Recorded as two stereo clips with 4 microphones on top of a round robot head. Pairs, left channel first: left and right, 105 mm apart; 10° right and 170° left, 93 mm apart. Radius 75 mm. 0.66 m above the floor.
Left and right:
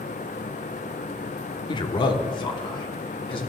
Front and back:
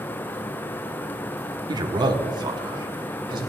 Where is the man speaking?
130° left, 1.1 m.